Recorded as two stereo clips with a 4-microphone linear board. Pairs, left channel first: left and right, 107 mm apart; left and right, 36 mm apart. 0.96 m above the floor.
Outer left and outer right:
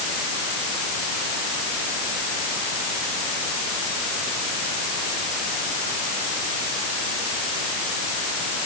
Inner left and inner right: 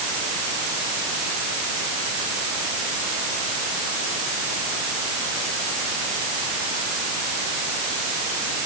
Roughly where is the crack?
I don't hear a crack.